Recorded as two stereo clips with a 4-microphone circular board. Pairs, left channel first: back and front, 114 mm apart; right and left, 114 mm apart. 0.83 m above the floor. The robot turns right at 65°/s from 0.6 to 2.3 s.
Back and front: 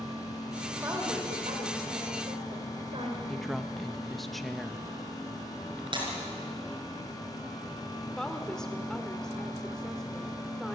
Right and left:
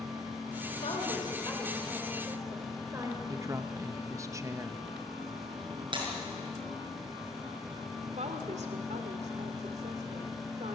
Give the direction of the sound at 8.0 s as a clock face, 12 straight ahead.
9 o'clock.